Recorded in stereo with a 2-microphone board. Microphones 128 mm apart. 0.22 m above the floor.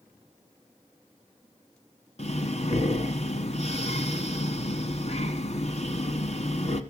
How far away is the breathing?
About 1.1 m.